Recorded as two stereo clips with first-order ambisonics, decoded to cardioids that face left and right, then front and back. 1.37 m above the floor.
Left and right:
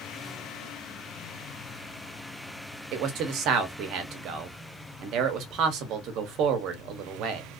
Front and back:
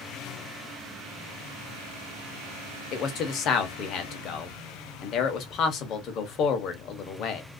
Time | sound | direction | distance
2.9 | a man speaking | 50° right | 0.8 m